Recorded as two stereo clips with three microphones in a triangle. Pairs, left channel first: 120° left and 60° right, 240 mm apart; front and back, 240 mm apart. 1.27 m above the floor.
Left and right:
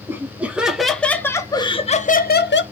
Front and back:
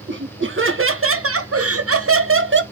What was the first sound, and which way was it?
Laughter, 140° right.